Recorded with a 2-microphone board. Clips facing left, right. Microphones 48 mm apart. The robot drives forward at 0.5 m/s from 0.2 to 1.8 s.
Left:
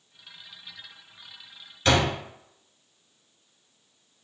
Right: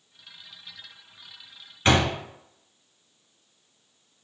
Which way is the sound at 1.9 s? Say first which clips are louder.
Right 1 dB; 25° right (ahead or behind).